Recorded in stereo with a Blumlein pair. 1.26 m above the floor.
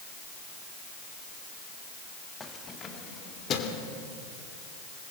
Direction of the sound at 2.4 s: 15° left.